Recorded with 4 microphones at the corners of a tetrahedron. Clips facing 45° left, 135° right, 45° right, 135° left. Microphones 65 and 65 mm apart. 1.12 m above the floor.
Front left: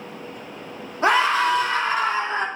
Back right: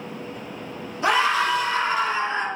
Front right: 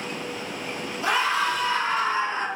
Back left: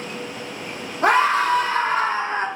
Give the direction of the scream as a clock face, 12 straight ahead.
9 o'clock.